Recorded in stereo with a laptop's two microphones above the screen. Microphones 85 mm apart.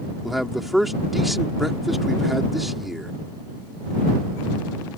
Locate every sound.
0.2 s a man speaking: centre (ahead or behind)